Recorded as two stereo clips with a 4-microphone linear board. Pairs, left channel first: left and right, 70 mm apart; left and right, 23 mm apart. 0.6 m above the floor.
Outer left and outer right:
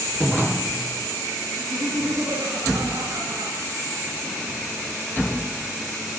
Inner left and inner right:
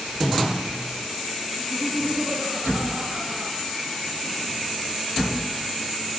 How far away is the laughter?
About 8 m.